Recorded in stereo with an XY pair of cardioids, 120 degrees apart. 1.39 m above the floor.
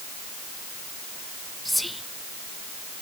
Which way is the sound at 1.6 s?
5° left.